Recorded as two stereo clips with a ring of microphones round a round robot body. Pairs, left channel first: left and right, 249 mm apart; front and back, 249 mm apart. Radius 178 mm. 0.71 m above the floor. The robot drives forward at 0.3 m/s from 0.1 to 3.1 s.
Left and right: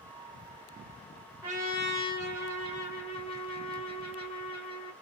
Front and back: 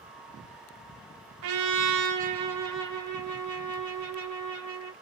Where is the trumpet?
170° right, 0.5 m; by 4.9 s 175° right, 1.1 m.